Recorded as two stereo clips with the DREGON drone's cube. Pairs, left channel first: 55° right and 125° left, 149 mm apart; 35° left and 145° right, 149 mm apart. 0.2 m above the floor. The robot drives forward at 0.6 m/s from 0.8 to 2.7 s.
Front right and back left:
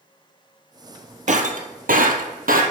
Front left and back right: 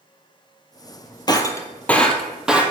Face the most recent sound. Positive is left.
turn(degrees=135)